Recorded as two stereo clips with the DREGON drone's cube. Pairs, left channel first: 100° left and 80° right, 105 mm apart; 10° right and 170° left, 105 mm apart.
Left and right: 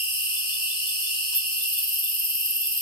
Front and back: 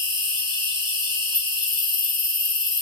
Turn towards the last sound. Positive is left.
turn(degrees=130)